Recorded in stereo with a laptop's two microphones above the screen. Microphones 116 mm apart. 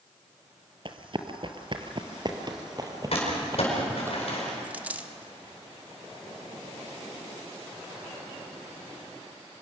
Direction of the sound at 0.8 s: 45° right (ahead or behind).